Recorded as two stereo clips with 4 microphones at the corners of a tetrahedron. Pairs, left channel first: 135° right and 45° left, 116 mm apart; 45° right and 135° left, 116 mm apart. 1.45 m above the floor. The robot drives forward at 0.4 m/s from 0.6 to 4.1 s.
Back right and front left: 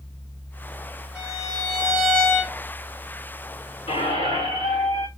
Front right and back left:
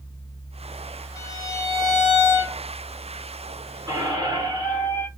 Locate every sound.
1.1 s a violin: 35° right, 1.4 m; by 2.6 s 85° right, 1.3 m
3.9 s a squeak: 165° right, 1.9 m; by 5.1 s 170° right, 2 m